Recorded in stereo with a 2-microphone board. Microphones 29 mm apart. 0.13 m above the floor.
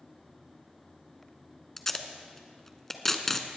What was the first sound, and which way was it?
Tape being pulled, 10° left (ahead or behind).